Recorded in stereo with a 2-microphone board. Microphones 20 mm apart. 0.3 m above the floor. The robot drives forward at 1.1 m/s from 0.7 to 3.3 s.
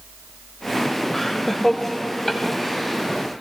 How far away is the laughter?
About 1.0 m.